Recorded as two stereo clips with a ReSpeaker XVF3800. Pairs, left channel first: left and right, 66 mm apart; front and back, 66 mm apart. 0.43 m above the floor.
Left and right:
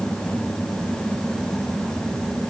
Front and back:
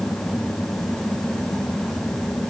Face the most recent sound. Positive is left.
No sound to turn to.